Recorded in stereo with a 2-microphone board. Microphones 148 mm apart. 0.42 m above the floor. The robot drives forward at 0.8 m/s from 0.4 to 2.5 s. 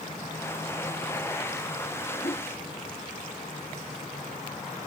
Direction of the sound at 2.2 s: 40° left (ahead or behind).